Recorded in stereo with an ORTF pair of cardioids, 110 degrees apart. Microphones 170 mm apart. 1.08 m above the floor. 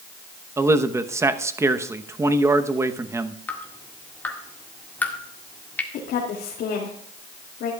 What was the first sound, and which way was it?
A man speaking, 15° right.